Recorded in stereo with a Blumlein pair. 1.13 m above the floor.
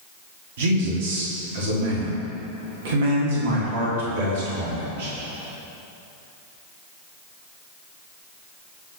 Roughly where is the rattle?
I don't hear a rattle.